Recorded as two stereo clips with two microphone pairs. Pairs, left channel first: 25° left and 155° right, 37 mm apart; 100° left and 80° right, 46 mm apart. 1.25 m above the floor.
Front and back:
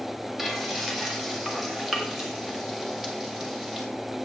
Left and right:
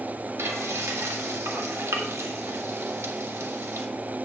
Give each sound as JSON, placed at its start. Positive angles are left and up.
{"t": 0.4, "sound": "frying", "azimuth_deg": -75, "distance_m": 1.6}